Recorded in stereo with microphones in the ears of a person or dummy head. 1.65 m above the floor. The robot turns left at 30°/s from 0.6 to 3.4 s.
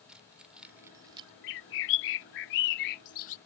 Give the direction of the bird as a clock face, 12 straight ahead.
8 o'clock.